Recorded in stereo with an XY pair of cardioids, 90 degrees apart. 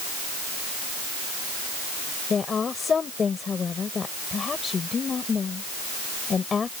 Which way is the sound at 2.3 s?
45° left.